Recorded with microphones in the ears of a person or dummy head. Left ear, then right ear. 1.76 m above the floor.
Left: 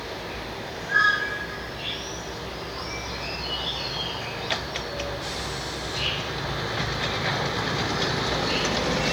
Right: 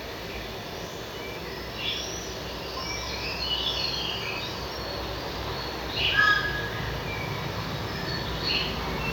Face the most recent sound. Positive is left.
turn(degrees=-20)  # may be behind; listen again after turning